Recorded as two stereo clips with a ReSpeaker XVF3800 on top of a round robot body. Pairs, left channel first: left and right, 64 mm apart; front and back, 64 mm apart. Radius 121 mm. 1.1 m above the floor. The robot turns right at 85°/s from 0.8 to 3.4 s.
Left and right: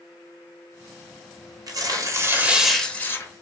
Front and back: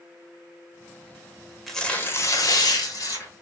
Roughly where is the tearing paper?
Right.